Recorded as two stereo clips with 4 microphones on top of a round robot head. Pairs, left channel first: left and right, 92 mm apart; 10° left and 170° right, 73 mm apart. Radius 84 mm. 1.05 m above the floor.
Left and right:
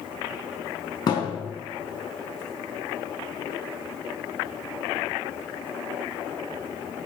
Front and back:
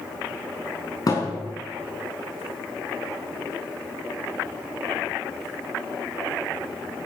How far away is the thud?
About 5.5 m.